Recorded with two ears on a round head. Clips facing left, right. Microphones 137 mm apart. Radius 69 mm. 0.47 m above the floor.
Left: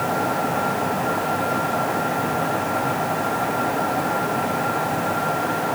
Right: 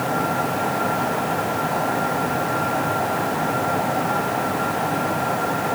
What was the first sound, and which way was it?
Only background noise.